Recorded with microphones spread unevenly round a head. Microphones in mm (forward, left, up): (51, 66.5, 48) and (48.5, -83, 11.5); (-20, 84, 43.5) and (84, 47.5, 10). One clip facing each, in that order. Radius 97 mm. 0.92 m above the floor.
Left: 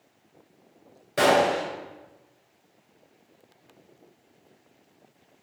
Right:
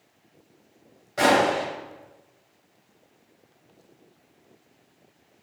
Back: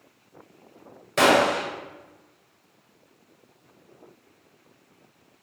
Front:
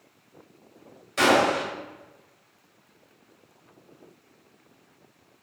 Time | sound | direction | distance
1.2 | a gunshot | 135° left | 2 m